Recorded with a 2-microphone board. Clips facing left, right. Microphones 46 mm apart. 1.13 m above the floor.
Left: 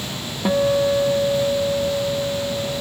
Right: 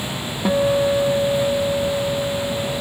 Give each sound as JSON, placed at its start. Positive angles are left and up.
{"t": 0.5, "sound": "a guitar", "side_deg": 0}